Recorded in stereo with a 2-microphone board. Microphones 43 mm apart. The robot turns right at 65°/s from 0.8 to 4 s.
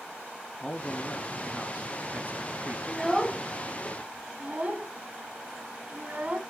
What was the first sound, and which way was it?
A man speaking, 150° left.